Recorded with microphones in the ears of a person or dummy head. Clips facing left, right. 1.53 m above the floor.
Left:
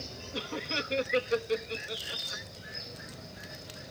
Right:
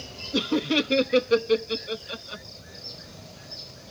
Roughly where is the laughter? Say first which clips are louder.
Right 14 dB; right.